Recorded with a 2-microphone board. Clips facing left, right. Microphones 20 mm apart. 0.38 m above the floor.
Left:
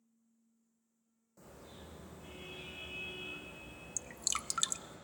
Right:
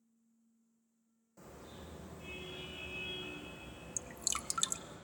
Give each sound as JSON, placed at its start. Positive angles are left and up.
{"t": 1.4, "sound": "a car horn", "side_deg": -10, "distance_m": 10.0}
{"t": 4.0, "sound": "dripping", "side_deg": 10, "distance_m": 0.6}